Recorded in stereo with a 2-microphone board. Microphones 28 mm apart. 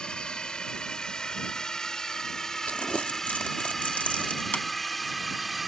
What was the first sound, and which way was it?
A drone, 30° left (ahead or behind).